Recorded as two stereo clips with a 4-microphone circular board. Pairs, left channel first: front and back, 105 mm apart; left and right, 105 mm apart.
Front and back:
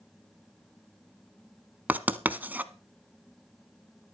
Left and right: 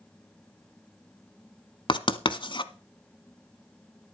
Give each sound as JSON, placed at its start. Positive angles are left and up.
{"t": 1.9, "sound": "writing", "azimuth_deg": 110, "distance_m": 0.9}